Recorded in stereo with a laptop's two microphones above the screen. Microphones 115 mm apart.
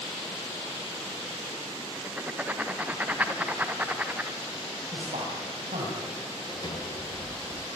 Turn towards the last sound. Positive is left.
turn(degrees=40)  # may be behind; listen again after turning